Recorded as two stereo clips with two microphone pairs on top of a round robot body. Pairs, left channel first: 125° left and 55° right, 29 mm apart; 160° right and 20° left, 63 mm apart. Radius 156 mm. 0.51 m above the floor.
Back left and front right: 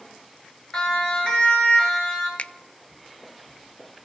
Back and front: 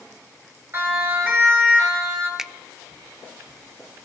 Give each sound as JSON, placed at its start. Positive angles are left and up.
{"t": 0.7, "sound": "a siren", "azimuth_deg": 70, "distance_m": 3.5}
{"t": 2.4, "sound": "a finger snap", "azimuth_deg": 100, "distance_m": 0.5}